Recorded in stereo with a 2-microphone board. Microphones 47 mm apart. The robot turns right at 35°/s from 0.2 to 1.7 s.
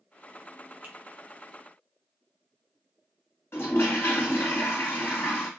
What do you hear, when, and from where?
0.8 s a finger snap: 40° right (ahead or behind), 0.7 m
3.5 s a toilet flushing: 65° left (ahead or behind), 1.7 m